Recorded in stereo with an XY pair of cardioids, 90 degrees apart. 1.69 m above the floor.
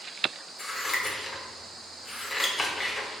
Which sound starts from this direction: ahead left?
Scissors, at 0.6 s.